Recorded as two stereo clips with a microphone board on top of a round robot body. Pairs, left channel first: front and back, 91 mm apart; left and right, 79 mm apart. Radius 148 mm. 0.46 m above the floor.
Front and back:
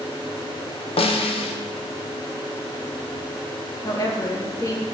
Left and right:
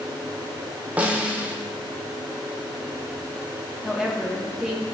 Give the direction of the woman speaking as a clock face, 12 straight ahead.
12 o'clock.